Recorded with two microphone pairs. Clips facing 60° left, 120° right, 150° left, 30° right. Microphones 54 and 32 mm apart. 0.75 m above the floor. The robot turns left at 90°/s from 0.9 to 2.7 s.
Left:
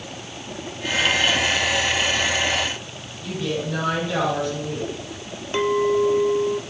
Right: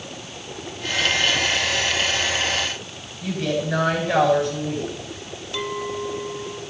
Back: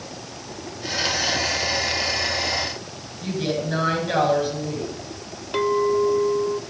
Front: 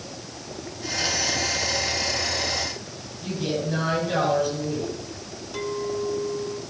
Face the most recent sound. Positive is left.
turn(degrees=115)